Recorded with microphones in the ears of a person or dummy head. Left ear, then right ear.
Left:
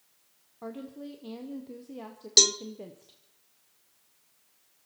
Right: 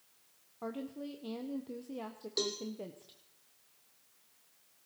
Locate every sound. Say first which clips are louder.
0.6 s a woman speaking: left 1 dB; 5° right (ahead or behind), 0.8 m
2.4 s a cowbell: left 15 dB; 60° left (ahead or behind), 0.5 m